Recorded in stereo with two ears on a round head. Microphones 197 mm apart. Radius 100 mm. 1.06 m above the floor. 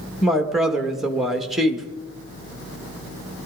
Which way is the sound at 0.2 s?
Centre (ahead or behind).